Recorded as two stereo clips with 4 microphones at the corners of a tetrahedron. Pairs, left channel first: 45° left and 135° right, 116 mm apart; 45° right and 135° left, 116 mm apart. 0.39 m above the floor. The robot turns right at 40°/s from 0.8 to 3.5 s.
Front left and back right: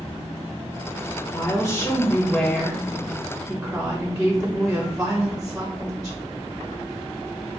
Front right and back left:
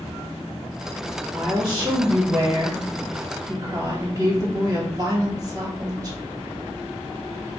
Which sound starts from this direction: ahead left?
A woman speaking, at 1.3 s.